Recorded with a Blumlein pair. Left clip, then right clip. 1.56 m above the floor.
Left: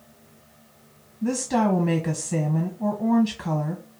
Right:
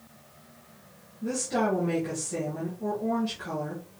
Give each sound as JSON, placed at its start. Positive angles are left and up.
{"t": 1.2, "sound": "a woman speaking", "azimuth_deg": 30, "distance_m": 1.0}